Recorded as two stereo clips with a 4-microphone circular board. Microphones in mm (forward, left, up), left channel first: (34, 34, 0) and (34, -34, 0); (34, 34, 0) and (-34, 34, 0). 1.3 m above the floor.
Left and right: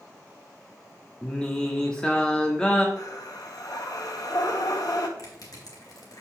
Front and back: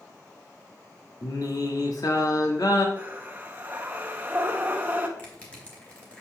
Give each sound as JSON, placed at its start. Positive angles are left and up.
{"t": 1.2, "sound": "singing", "azimuth_deg": 15, "distance_m": 1.3}
{"t": 3.0, "sound": "breathing", "azimuth_deg": 115, "distance_m": 1.1}
{"t": 5.2, "sound": "crushing", "azimuth_deg": 70, "distance_m": 2.5}